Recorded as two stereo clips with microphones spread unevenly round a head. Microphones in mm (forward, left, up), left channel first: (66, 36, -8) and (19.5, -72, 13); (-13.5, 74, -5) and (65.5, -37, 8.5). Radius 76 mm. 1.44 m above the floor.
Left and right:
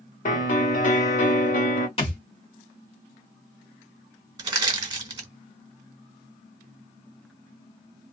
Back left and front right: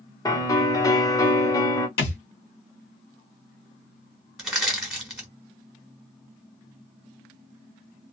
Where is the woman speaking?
No woman speaking in this recording.